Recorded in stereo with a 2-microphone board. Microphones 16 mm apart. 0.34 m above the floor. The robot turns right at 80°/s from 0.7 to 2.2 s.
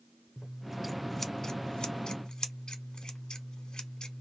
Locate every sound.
0.4 s scissors: 20° right, 0.7 m; by 4.2 s 100° left, 0.7 m